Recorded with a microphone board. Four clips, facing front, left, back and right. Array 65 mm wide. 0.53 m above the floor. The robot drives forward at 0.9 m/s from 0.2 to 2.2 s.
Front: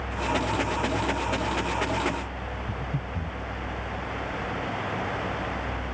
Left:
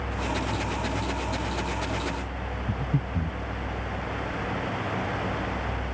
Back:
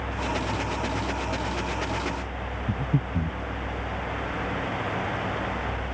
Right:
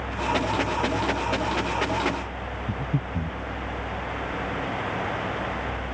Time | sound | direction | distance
2.7 | breathing | 160° right | ?